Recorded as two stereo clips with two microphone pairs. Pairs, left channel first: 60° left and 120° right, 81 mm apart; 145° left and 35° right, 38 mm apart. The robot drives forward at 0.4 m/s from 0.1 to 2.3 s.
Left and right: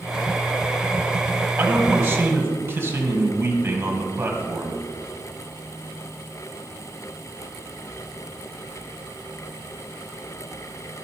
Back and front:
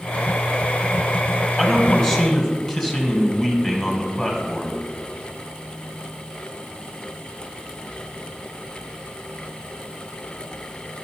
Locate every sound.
1.6 s a man speaking: 135° right, 1.7 m; by 4.8 s 150° right, 1.8 m